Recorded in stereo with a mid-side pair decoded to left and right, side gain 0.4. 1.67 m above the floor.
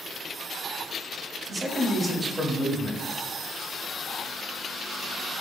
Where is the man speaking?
20° right, 0.8 m.